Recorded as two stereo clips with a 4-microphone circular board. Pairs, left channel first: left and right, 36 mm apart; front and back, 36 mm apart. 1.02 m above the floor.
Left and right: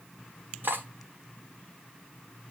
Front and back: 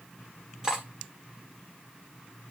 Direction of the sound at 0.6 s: 110° right.